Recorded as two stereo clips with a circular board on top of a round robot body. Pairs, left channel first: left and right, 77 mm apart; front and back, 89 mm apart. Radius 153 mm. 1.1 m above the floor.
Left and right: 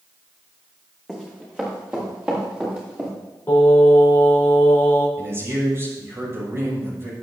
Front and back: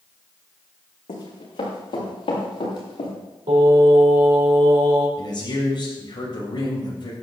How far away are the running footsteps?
About 6 m.